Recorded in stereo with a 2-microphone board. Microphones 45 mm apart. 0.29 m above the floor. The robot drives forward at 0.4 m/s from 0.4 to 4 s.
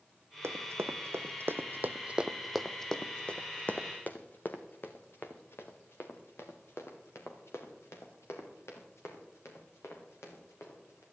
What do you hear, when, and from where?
0.4 s running footsteps: 80° right, 1.2 m; by 11.0 s 85° left, 4.5 m